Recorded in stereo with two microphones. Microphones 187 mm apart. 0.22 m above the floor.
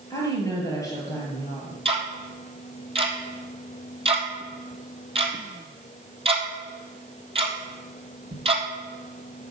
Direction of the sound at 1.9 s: 30° right (ahead or behind).